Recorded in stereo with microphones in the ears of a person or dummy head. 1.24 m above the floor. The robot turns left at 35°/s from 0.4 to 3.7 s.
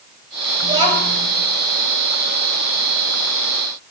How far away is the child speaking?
About 3.5 m.